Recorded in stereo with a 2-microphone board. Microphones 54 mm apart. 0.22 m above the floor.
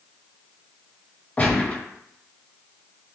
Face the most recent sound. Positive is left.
turn(degrees=25)  # may be behind; listen again after turning